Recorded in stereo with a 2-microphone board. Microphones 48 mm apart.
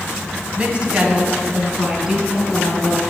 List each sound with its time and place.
0.6 s a woman speaking: 25° right (ahead or behind), 1.8 m; by 3.0 s 15° right (ahead or behind), 3.5 m